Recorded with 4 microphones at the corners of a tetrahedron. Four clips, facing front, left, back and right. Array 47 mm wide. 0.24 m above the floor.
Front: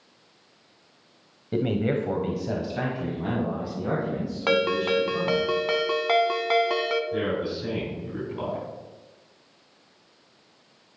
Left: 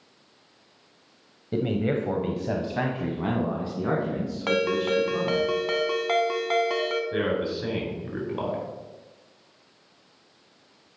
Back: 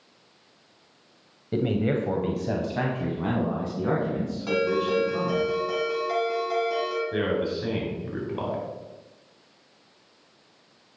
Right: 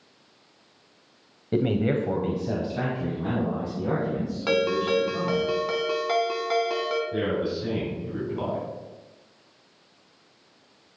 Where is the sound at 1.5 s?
65° right, 1.0 m; by 5.5 s 115° left, 3.5 m.